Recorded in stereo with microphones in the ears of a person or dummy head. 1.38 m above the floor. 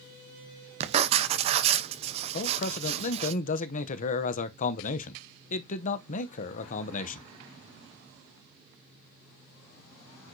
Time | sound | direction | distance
0.8 | writing | 35° right (ahead or behind) | 0.8 m
2.3 | a man speaking | 45° left (ahead or behind) | 0.7 m